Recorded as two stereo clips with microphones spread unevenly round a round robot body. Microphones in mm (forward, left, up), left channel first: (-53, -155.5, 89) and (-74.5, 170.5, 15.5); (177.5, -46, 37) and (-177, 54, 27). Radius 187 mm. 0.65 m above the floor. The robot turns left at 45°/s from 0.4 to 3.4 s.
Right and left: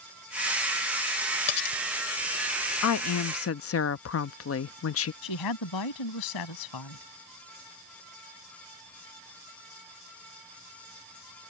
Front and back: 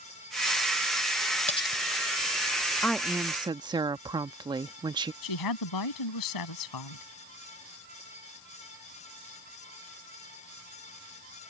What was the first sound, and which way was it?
Cutlery clinking, 90° right.